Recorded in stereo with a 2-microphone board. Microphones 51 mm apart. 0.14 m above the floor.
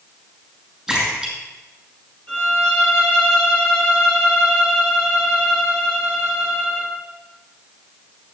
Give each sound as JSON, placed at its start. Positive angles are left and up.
{"t": 0.9, "sound": "a splash", "side_deg": -5, "distance_m": 5.0}
{"t": 2.3, "sound": "a violin", "side_deg": 20, "distance_m": 3.0}